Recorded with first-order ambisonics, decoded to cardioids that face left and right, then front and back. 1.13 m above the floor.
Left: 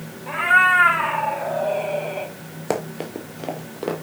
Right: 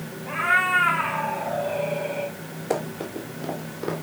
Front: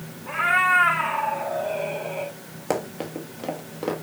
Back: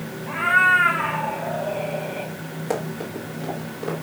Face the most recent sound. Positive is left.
turn(degrees=65)